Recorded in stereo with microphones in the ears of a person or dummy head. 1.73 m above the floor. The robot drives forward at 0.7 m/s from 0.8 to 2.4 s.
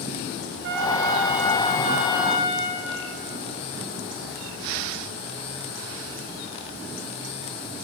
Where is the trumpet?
65° right (ahead or behind), 0.5 m; by 2.8 s 20° right (ahead or behind), 1.3 m.